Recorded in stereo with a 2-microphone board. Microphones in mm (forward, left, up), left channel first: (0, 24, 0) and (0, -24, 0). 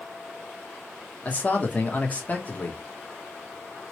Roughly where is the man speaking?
Left.